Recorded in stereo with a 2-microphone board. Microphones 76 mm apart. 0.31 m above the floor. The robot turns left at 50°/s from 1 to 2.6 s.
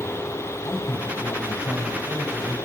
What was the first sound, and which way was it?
A man speaking, 145° left.